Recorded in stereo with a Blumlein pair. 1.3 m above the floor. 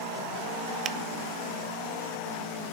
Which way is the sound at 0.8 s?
25° right.